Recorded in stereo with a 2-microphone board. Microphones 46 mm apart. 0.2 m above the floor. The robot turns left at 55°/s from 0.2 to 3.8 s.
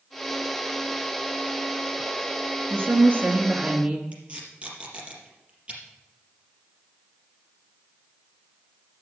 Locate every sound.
2.7 s a woman speaking: 90° right, 3 m; by 4.0 s 150° right, 3 m
4.1 s tape being pulled: 30° right (ahead or behind), 4.5 m